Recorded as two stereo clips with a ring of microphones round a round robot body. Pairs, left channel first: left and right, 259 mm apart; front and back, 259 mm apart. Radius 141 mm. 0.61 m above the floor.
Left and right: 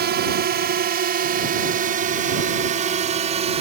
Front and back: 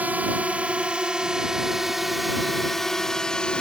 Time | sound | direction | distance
0.0 | a drone | 100° right | ?